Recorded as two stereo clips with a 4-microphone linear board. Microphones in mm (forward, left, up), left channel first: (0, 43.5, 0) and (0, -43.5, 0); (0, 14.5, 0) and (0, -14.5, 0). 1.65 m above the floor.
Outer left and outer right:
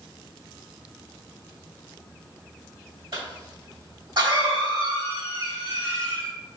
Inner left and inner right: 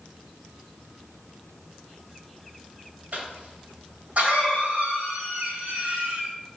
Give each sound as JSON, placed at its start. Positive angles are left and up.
{"t": 3.1, "sound": "a cough", "side_deg": -75, "distance_m": 2.0}